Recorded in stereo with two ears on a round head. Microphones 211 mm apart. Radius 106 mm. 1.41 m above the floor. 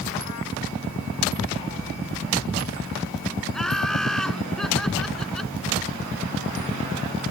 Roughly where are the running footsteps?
No running footsteps in this recording.